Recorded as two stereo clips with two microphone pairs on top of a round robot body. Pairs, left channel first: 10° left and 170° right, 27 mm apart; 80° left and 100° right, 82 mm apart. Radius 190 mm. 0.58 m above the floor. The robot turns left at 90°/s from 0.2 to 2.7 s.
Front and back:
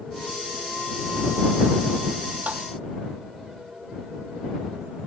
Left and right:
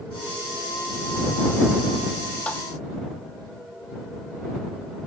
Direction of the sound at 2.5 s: 155° left.